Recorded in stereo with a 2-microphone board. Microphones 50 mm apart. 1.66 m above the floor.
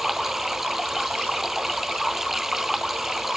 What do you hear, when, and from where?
0.0 s running water: 5° right (ahead or behind)